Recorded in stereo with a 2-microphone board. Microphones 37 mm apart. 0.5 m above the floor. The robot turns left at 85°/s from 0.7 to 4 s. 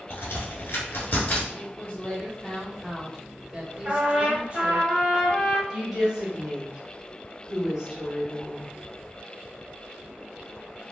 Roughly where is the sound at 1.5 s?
Left.